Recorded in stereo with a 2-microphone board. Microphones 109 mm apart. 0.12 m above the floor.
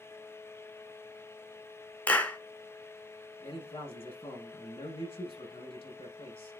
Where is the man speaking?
50° left (ahead or behind), 5.5 m.